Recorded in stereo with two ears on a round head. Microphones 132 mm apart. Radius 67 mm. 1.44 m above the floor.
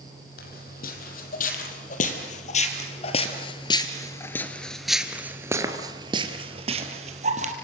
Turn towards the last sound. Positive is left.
turn(degrees=-50)  # may be behind; listen again after turning